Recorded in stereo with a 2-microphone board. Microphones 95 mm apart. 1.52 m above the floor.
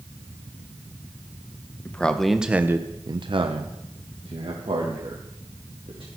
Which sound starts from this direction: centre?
A man speaking, at 1.9 s.